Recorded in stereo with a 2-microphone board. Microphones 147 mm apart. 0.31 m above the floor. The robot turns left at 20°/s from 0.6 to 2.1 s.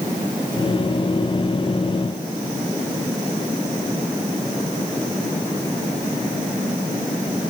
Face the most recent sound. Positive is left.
No sound to turn to.